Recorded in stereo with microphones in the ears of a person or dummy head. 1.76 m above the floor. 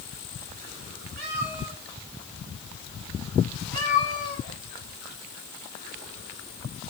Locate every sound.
1.2 s a cat meowing: 50° right (ahead or behind), 5.5 m